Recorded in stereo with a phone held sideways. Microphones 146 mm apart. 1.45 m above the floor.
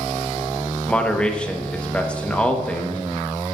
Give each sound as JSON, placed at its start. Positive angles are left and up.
{"t": 0.9, "sound": "a man speaking", "side_deg": 5, "distance_m": 1.2}